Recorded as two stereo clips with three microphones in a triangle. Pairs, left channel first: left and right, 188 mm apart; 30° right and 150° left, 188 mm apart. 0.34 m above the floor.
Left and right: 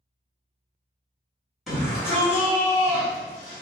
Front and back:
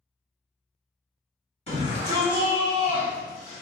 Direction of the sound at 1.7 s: Straight ahead.